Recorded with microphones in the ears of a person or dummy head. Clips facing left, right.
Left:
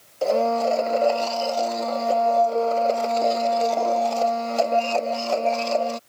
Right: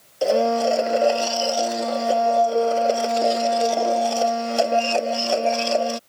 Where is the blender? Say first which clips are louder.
Right 2 dB; 15° right (ahead or behind).